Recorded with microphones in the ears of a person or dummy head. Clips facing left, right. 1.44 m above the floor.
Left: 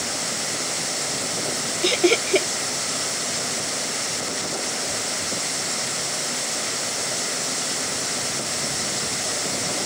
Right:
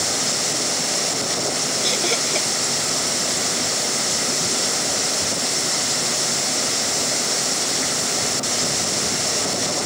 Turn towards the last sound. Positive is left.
turn(degrees=45)  # may be behind; listen again after turning